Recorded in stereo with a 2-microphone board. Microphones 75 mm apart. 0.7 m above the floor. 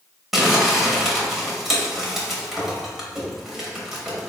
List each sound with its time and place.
0.3 s crumpling: 5° right (ahead or behind), 0.8 m